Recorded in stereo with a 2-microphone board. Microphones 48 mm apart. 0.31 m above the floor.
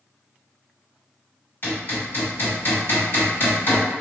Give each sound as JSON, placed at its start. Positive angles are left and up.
{"t": 1.6, "sound": "hammering", "side_deg": 50, "distance_m": 1.6}